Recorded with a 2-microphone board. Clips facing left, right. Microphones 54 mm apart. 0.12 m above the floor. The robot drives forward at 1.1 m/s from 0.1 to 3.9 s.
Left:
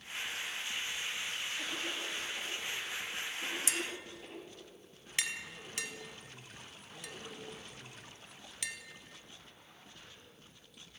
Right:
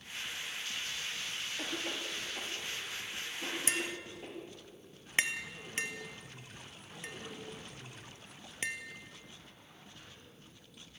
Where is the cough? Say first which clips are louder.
Even; 25° right (ahead or behind), 6.5 m; by 4.3 s 20° right (ahead or behind), 8.5 m.